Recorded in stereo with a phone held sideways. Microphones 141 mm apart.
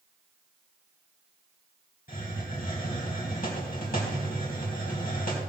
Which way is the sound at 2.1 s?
80° left.